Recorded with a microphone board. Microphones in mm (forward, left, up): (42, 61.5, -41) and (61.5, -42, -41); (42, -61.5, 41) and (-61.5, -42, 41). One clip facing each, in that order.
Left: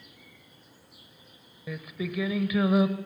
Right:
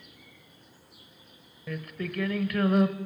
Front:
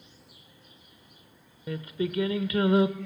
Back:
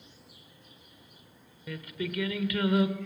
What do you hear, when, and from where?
1.7 s singing: 20° left, 1.0 m